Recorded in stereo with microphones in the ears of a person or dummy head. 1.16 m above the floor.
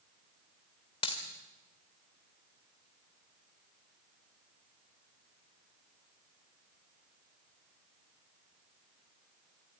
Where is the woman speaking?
No woman speaking in this recording.